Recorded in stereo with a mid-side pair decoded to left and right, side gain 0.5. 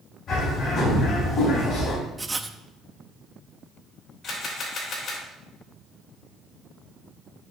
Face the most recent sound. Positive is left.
turn(degrees=60)